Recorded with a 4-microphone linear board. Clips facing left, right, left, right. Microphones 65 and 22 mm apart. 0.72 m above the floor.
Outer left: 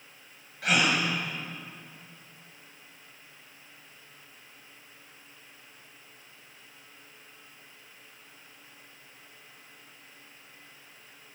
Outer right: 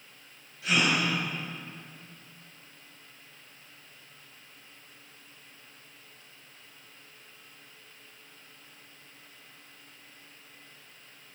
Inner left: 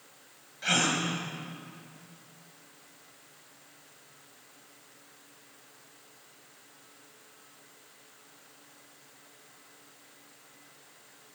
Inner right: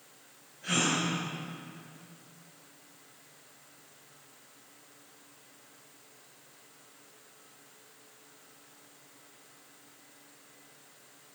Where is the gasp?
75° left (ahead or behind), 5 m.